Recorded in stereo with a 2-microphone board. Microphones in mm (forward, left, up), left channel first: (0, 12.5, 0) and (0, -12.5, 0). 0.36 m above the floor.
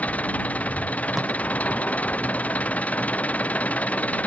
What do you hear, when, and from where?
0.0 s an engine running: 85° left
1.1 s tape being pulled: 15° right (ahead or behind)